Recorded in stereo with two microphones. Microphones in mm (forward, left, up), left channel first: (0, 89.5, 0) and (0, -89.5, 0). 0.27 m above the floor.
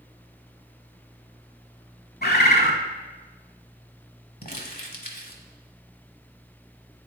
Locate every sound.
2.2 s a bird: 65° left (ahead or behind), 0.9 m
4.4 s crumpling: 50° left (ahead or behind), 1.0 m